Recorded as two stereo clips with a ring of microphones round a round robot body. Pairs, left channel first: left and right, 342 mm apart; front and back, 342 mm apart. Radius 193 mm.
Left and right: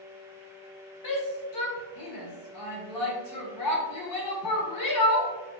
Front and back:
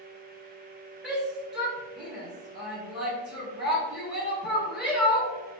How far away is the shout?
About 2.5 m.